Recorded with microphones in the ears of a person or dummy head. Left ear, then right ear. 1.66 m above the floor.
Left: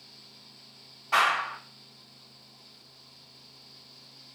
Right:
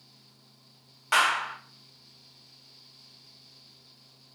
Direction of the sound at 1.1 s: 65° right (ahead or behind).